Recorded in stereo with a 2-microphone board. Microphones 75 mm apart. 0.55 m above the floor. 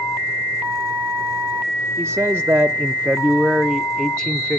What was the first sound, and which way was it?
A man speaking, 30° right (ahead or behind).